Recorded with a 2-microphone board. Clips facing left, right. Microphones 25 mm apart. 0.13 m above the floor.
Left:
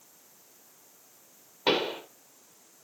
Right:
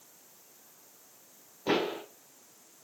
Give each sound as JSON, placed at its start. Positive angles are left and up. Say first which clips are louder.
{"t": 1.7, "sound": "a pop", "louder": "left 2 dB", "side_deg": 65, "distance_m": 3.5}